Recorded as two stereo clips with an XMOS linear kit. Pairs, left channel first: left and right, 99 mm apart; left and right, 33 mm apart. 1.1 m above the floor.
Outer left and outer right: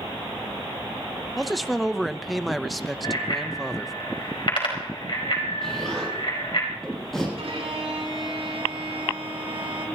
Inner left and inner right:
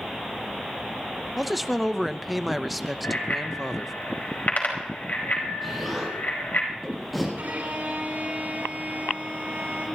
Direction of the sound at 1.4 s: Centre (ahead or behind).